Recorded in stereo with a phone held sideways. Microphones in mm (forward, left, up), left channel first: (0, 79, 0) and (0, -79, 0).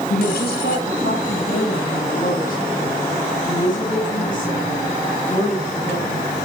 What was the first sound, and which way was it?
A woman speaking, 80° left.